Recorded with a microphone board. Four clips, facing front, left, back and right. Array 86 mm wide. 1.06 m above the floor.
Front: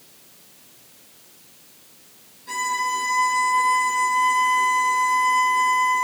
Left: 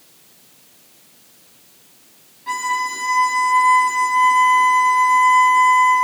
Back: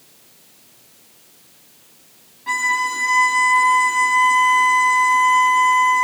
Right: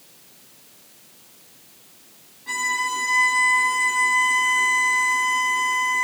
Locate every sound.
2.5 s a violin: 160° left, 3.5 m